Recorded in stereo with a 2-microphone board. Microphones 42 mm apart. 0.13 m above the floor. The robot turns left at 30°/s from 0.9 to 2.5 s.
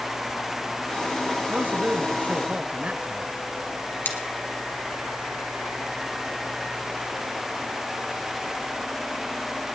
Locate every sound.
1.5 s a man speaking: 80° right, 1.3 m; by 3.3 s 110° right, 1.3 m
4.0 s scissors: 55° left (ahead or behind), 1.7 m